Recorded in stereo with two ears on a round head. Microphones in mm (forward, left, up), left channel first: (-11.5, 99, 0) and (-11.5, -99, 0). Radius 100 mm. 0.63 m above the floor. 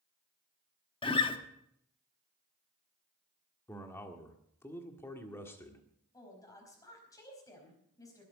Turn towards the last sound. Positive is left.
turn(degrees=15)  # may be behind; listen again after turning